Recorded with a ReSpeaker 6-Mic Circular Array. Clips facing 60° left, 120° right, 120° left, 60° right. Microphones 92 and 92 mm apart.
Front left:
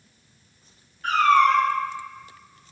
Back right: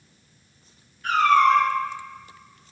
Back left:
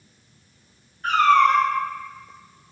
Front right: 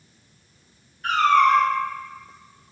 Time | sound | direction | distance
1.0 | a cat meowing | 75° left | 1.5 m